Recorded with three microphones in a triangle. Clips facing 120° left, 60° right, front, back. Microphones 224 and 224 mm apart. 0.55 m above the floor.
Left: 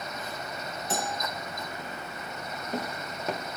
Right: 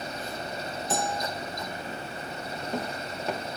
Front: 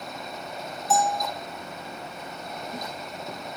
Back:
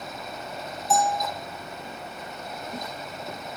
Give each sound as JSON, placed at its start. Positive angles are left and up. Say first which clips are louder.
{"t": 0.9, "sound": "a bell", "louder": "right 3 dB, even", "azimuth_deg": 90, "distance_m": 2.0}